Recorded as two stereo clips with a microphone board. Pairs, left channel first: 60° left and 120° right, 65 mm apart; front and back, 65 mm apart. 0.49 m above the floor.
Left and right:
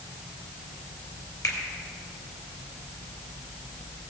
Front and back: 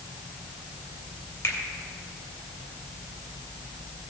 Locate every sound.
1.4 s a finger snap: 50° left, 2.5 m